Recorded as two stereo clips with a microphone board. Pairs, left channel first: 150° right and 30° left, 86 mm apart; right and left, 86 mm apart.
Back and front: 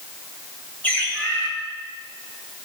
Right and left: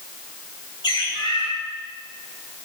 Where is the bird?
80° right, 3.5 m.